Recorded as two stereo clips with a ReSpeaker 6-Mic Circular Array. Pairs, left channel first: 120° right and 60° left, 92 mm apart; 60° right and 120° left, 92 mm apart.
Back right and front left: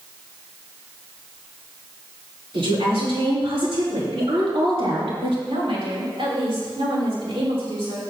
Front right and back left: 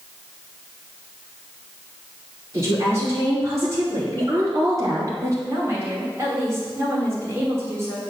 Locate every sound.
2.5 s a woman speaking: 60° left, 4.5 m; by 5.3 s 65° left, 3.5 m
5.5 s a woman speaking: 60° left, 4 m